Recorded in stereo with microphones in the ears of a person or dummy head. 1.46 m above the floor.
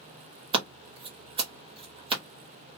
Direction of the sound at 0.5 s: 30° right (ahead or behind).